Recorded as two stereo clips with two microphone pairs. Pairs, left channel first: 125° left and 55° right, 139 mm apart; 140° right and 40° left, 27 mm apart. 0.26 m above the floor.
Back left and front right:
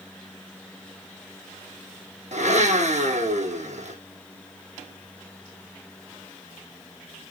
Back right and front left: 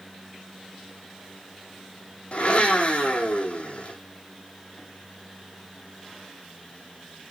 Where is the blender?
90° right, 3 m.